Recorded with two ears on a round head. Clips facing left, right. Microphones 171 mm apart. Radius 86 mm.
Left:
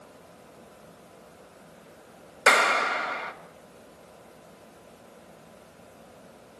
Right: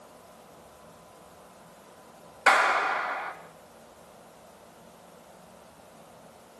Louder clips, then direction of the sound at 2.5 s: Left 1 dB; 50° left (ahead or behind).